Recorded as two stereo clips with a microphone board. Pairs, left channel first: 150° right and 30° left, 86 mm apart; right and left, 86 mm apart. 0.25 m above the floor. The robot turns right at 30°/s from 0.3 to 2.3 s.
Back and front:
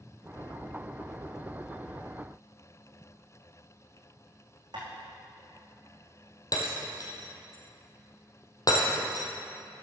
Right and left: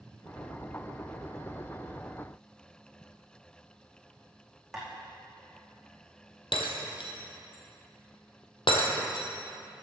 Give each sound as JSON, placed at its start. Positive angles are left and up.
{"t": 4.7, "sound": "tapping", "azimuth_deg": 0, "distance_m": 4.0}
{"t": 6.5, "sound": "breaking glass", "azimuth_deg": -105, "distance_m": 1.9}